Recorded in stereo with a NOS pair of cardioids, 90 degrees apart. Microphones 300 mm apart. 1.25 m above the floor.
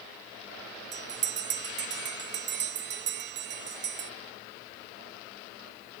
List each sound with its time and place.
0.9 s a bell: 40° right, 0.5 m